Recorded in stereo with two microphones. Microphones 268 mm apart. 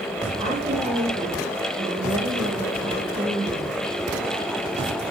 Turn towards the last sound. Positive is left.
turn(degrees=-20)  # may be behind; listen again after turning